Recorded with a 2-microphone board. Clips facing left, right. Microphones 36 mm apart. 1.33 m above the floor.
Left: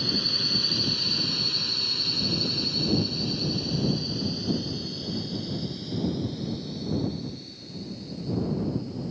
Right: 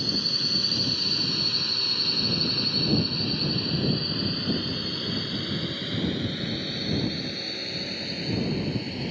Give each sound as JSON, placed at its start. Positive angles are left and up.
{"t": 0.0, "sound": "a drone", "side_deg": 10}